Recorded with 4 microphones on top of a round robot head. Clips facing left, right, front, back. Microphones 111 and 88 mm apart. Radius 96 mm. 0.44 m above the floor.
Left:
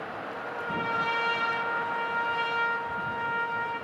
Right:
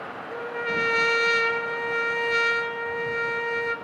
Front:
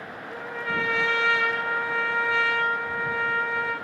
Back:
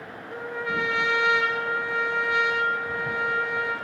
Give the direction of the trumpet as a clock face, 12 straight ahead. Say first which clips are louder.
Right 6 dB, back 1 dB; 3 o'clock.